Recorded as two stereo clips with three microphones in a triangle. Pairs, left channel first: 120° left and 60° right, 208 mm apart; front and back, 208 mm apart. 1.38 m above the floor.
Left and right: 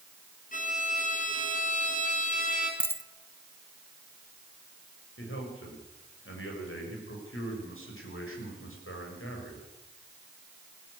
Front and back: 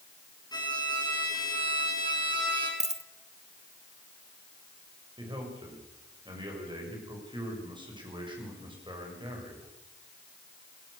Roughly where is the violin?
Left.